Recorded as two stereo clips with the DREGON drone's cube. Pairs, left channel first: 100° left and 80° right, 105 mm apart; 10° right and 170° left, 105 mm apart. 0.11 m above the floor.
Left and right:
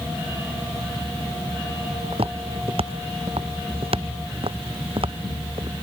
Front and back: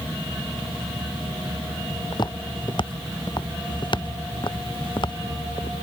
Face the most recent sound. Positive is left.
turn(degrees=-50)